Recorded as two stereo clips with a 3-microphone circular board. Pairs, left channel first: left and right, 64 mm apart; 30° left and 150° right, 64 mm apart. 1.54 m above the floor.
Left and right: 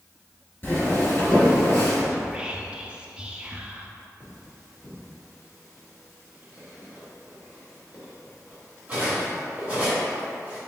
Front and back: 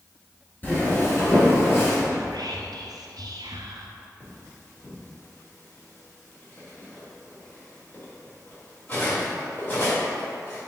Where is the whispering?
165° right, 0.6 m.